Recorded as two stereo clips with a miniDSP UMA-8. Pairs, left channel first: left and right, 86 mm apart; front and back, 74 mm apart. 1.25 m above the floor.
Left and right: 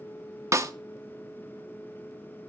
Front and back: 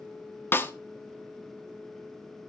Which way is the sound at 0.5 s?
50° right.